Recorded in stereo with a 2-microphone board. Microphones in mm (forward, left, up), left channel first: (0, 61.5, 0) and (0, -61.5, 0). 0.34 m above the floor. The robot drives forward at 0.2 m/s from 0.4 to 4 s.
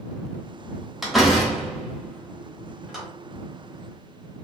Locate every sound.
1.0 s a door slam: centre (ahead or behind), 0.9 m